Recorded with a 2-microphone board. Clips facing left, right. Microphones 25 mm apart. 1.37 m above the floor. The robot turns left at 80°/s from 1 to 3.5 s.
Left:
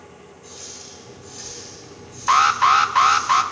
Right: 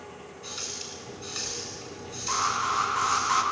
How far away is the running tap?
About 8.5 m.